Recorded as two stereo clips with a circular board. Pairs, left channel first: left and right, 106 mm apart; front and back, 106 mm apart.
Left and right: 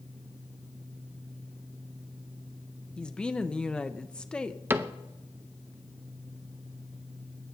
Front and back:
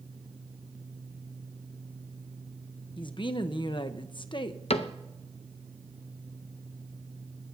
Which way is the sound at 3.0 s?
10° left.